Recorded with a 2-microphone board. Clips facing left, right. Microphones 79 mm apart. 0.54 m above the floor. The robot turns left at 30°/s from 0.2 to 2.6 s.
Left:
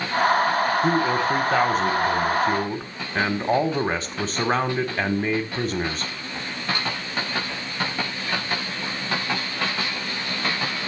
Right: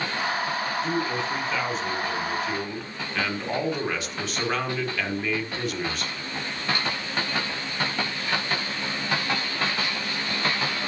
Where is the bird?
No bird in this recording.